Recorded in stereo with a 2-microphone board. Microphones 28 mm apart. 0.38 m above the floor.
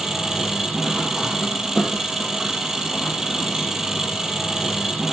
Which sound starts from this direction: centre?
An engine running, at 0.0 s.